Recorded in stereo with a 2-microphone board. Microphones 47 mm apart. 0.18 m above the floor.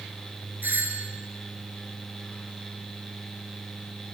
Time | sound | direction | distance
0.6 | a doorbell | 55° right (ahead or behind) | 4.5 m